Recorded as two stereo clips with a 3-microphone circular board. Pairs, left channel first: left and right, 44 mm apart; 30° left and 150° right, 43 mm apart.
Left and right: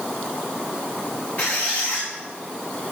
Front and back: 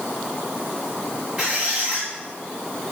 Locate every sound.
1.4 s a squeak: 150° left, 3.5 m